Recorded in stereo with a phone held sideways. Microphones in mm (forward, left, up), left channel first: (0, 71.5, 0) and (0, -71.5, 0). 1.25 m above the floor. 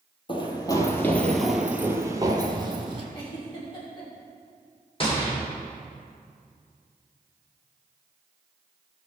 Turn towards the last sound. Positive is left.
turn(degrees=35)  # may be behind; listen again after turning